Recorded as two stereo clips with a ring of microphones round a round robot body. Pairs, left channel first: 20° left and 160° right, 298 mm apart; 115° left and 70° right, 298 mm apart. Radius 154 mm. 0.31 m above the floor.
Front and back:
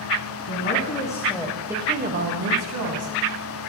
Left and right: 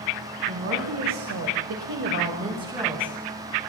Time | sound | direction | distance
0.5 | a woman speaking | 25° right | 2.5 m